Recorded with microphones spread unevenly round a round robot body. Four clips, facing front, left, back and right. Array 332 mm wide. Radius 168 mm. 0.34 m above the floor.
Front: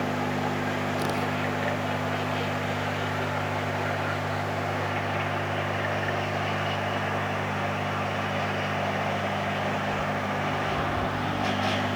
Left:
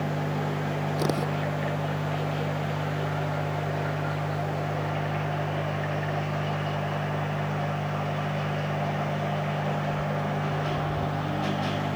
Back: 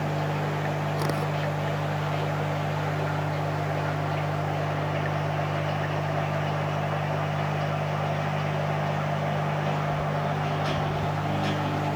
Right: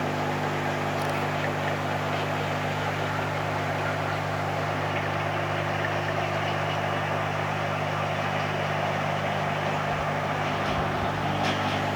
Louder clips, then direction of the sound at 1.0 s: Left 1 dB, even; 100° left.